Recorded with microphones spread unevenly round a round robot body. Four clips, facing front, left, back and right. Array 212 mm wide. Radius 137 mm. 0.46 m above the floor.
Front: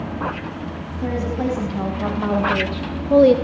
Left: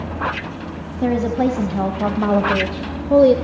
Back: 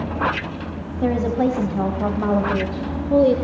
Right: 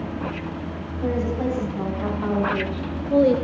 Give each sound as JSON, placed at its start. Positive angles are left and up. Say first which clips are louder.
{"t": 1.0, "sound": "a woman speaking", "louder": "left 6 dB, back 4 dB", "azimuth_deg": 95, "distance_m": 4.0}